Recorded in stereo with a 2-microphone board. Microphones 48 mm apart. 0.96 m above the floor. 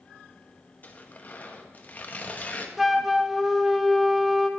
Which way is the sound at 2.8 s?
5° right (ahead or behind).